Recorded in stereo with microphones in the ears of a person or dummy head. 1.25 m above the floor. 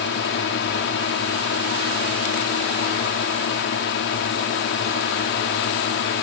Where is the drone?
65° left (ahead or behind).